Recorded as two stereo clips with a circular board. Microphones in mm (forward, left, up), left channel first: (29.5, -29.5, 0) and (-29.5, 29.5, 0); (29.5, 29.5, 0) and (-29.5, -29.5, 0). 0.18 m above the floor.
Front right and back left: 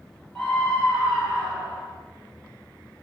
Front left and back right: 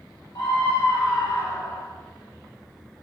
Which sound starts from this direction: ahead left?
A scream, at 0.3 s.